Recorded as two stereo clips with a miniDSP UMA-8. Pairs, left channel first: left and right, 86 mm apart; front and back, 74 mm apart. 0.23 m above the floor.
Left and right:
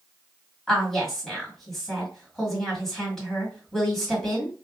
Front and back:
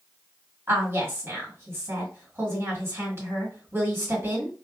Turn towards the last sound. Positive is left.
turn(degrees=175)